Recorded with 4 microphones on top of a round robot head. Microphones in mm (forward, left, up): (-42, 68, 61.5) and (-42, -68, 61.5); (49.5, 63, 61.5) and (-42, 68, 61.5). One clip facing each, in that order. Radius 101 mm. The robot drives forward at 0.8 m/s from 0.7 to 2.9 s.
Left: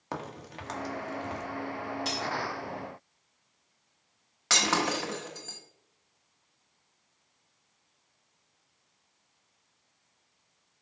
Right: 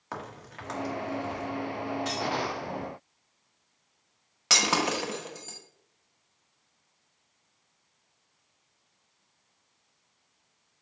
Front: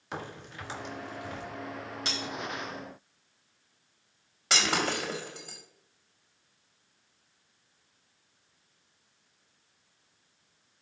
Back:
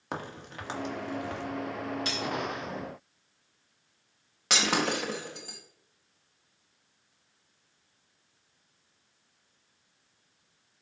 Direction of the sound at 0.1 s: 145° left.